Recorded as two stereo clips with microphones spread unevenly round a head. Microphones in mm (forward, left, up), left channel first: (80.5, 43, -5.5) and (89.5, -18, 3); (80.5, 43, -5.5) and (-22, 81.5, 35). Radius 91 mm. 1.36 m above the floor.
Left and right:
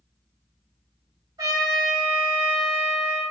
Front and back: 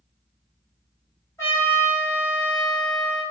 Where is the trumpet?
105° right, 1.8 m.